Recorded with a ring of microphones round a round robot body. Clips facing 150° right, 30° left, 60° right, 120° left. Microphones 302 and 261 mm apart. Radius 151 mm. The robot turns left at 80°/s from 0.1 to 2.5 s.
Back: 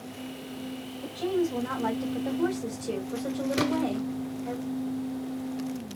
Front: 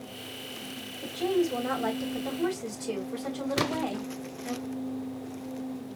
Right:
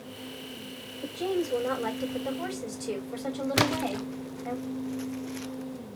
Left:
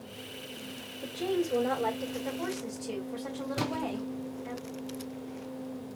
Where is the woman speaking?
70° left, 3.5 m; by 4.6 s 50° right, 3.5 m.